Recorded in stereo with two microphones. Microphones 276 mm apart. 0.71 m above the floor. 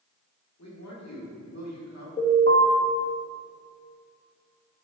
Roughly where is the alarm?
Left.